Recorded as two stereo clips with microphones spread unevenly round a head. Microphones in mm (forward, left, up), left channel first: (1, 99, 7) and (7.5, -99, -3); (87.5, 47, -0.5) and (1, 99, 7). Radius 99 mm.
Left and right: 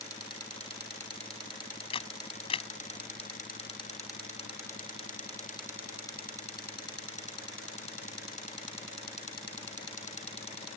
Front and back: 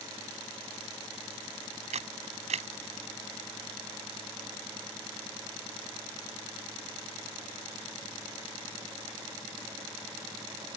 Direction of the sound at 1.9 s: 155° left.